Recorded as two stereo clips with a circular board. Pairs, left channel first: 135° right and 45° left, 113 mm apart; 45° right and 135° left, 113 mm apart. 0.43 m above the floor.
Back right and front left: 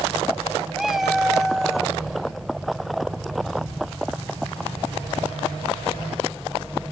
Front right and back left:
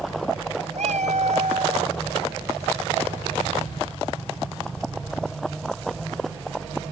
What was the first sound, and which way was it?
A cat meowing, 135° left.